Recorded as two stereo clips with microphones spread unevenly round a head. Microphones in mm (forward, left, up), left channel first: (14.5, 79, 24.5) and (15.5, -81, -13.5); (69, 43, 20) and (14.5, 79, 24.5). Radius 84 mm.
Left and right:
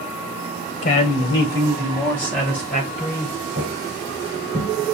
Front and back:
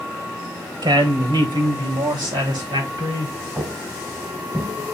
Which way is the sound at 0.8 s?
140° left.